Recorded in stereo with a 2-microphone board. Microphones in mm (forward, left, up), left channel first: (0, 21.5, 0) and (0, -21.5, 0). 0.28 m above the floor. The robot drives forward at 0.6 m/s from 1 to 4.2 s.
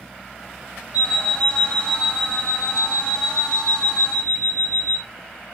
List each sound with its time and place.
0.9 s an alarm clock: 20° right (ahead or behind), 3.5 m; by 5.0 s 15° right (ahead or behind), 5 m